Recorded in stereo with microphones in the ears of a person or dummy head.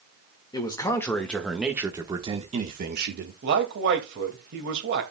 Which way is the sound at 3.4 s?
60° right (ahead or behind).